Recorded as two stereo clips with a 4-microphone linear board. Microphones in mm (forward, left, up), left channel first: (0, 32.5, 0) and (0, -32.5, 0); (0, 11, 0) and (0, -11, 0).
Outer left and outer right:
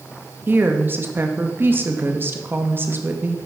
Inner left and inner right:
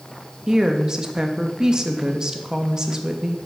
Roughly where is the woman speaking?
Right.